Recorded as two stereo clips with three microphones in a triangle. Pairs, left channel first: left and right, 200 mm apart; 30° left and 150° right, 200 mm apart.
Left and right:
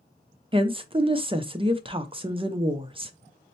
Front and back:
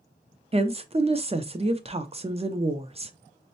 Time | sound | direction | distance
0.5 | a woman speaking | 125° right | 0.5 m